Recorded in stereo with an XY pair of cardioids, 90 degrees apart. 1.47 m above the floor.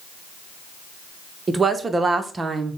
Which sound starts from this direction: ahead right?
A woman speaking, at 1.5 s.